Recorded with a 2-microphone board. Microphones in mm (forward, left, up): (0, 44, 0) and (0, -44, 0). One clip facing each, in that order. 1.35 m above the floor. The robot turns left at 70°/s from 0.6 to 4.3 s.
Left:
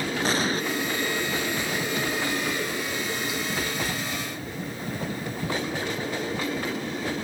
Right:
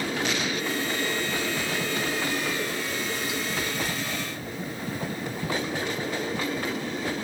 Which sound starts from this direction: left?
An explosion, at 0.2 s.